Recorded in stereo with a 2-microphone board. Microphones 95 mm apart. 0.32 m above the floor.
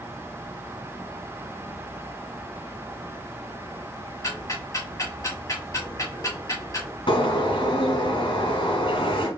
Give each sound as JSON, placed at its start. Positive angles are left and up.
{"t": 4.2, "sound": "ticking", "side_deg": 35, "distance_m": 2.5}
{"t": 7.1, "sound": "a bird", "side_deg": 65, "distance_m": 1.8}